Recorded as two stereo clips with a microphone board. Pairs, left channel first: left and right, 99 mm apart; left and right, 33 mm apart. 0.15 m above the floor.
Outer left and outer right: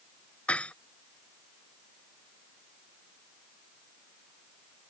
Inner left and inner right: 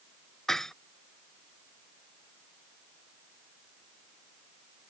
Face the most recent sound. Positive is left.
turn(degrees=15)  # may be behind; listen again after turning